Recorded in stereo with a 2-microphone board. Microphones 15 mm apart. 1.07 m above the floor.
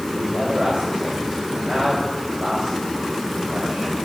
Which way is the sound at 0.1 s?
80° right.